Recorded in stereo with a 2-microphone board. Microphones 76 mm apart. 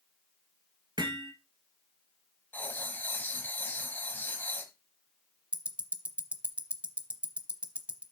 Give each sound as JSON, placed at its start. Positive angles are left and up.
{"t": 1.0, "sound": "hammering", "side_deg": -70, "distance_m": 2.0}
{"t": 2.5, "sound": "writing", "side_deg": 25, "distance_m": 1.1}
{"t": 5.5, "sound": "ticking", "side_deg": -15, "distance_m": 0.8}